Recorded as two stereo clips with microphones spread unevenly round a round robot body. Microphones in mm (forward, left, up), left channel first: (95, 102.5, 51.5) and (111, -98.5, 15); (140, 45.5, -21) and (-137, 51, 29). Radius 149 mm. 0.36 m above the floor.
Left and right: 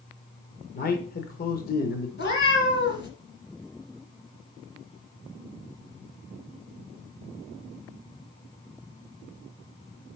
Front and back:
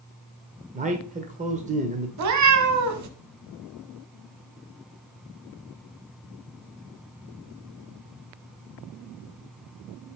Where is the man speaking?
115° left, 1.1 m.